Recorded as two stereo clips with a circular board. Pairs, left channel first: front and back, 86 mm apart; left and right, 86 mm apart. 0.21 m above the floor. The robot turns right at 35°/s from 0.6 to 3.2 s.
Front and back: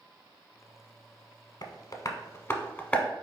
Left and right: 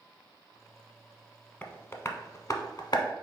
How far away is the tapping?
About 0.5 m.